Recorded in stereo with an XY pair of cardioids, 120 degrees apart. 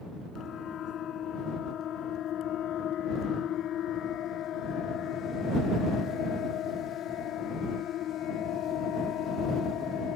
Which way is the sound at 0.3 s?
55° left.